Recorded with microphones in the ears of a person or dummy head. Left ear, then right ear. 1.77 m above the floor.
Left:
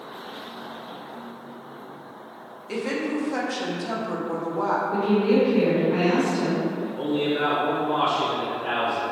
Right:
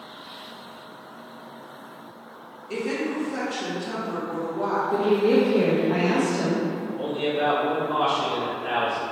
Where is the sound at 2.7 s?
75° left (ahead or behind), 1.0 m.